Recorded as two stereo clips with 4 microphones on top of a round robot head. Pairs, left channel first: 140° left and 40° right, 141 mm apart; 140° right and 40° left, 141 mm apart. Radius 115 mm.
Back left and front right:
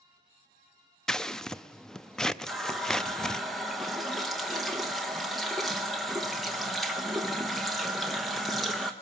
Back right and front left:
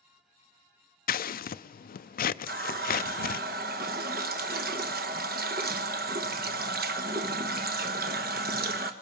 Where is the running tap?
50° left, 0.8 m.